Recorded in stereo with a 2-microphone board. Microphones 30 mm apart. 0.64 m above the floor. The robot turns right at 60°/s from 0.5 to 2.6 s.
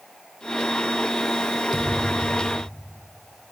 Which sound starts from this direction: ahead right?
A thud, at 1.7 s.